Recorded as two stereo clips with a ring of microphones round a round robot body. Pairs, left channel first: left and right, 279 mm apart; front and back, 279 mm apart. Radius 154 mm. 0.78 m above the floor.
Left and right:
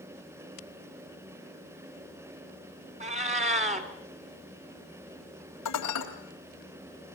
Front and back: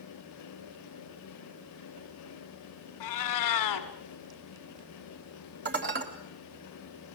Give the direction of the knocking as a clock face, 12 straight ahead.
No knocking in this recording.